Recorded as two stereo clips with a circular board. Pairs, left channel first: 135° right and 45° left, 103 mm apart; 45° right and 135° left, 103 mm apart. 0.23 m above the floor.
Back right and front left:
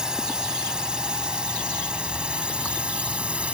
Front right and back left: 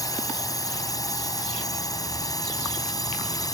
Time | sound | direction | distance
0.0 | a drone | 35° right | ?